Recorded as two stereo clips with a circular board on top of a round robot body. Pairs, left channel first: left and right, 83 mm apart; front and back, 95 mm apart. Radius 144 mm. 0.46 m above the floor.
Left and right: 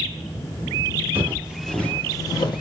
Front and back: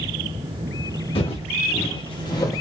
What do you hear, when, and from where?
1.1 s footsteps: 30° right, 0.8 m; by 2.6 s 60° left, 0.8 m